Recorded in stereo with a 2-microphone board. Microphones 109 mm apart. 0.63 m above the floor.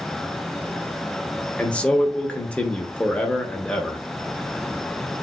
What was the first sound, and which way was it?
A man speaking, 10° left (ahead or behind).